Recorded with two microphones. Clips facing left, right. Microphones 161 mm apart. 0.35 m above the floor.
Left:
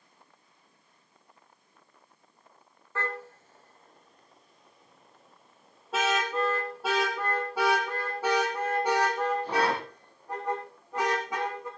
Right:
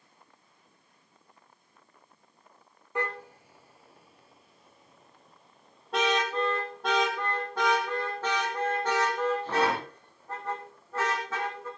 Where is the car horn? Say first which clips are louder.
Right 2 dB; 15° right (ahead or behind), 3 m; by 11.7 s 15° left (ahead or behind), 10 m.